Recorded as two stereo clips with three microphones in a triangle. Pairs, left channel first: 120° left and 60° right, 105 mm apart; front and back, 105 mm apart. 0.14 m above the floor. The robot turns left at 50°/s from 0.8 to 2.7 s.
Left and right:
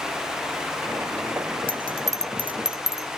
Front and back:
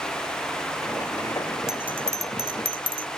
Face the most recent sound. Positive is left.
turn(degrees=-145)